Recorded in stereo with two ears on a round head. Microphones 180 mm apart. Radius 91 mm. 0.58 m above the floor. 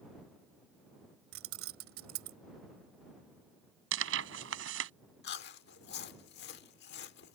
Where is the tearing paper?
65° right (ahead or behind).